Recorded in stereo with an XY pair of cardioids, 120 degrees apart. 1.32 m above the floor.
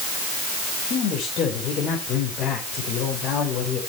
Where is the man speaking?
60° left, 5 m.